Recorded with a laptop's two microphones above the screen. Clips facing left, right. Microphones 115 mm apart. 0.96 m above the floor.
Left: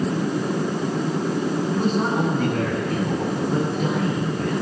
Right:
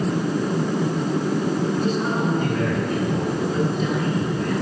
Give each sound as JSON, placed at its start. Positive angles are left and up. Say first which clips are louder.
{"t": 1.7, "sound": "a man speaking", "louder": "left 1 dB", "side_deg": 55, "distance_m": 9.0}